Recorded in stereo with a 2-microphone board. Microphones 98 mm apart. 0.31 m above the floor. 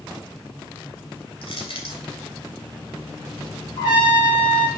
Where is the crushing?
55° left (ahead or behind), 3 m.